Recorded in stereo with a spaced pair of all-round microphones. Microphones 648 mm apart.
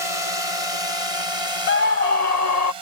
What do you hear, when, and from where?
0.0 s a drone: 50° left (ahead or behind); by 2.8 s 40° left (ahead or behind)
1.7 s a scream: 75° left (ahead or behind)